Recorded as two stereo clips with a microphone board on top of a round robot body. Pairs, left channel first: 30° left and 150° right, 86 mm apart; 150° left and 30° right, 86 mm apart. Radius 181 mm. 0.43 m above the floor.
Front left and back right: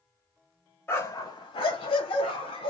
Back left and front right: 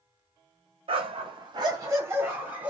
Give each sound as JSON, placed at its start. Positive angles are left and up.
{"t": 0.9, "sound": "a dog barking", "azimuth_deg": -35, "distance_m": 0.7}